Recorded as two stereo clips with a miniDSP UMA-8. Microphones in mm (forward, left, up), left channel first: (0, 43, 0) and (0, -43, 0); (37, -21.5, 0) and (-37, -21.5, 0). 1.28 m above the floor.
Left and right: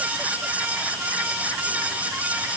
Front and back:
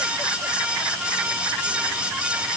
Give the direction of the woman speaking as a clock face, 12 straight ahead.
No woman speaking in this recording.